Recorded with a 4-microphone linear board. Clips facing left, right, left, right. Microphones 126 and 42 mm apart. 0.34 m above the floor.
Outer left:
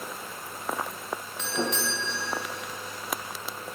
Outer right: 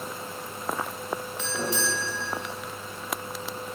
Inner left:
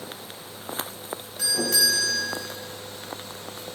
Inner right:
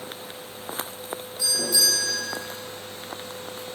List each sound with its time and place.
1.4 s a doorbell: 60° left (ahead or behind), 3.5 m